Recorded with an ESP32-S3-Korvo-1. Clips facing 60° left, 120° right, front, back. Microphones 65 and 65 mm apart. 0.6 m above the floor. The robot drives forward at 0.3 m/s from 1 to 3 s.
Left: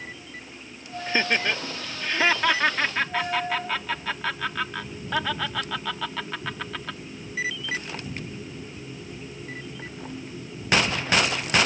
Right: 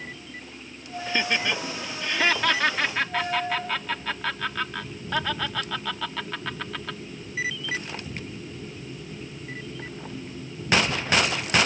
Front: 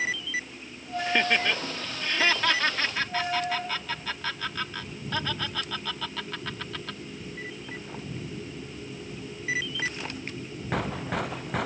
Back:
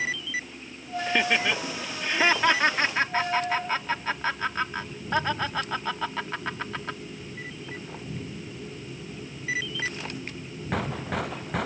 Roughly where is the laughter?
Left.